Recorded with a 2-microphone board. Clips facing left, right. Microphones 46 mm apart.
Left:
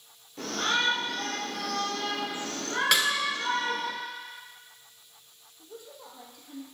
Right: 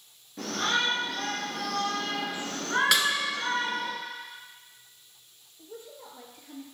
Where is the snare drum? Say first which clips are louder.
Left 2 dB; centre (ahead or behind), 1.2 m.